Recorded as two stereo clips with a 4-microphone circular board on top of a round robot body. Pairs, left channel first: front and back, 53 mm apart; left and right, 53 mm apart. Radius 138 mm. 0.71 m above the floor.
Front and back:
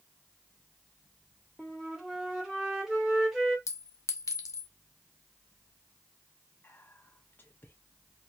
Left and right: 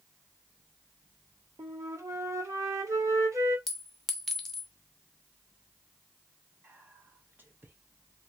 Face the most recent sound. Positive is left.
turn(degrees=-45)